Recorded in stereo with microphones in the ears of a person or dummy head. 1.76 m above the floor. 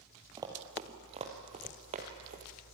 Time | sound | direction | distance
0.4 | running footsteps | 15° right (ahead or behind) | 3 m